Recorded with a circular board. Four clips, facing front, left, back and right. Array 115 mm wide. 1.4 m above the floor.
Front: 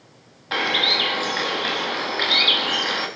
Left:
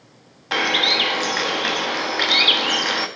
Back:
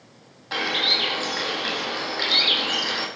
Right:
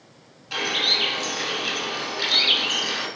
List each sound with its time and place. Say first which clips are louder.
0.5 s a bird: left 7 dB, front 3 dB; 70° left, 1.2 m